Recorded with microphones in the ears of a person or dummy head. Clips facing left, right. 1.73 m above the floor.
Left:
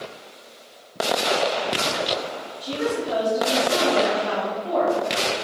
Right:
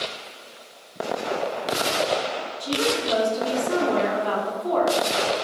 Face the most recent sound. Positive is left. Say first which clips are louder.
# even
turn(degrees=-65)  # may be behind; listen again after turning